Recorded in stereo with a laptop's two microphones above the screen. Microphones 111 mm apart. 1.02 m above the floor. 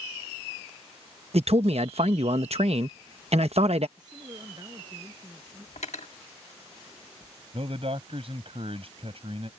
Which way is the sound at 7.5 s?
60° right (ahead or behind).